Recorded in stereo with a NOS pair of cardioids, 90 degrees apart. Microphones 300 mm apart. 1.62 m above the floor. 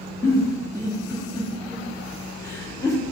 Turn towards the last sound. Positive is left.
turn(degrees=10)